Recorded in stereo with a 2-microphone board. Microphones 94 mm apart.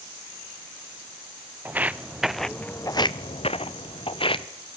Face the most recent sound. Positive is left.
turn(degrees=65)  # may be behind; listen again after turning